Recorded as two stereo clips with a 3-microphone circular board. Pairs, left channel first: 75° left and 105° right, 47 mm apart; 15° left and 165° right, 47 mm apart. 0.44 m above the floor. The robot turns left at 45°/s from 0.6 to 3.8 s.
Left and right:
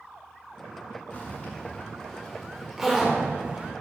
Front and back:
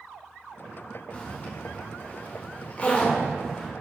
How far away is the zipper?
About 1.6 m.